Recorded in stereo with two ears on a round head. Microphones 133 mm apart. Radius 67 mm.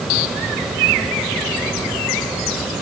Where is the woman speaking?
No woman speaking in this recording.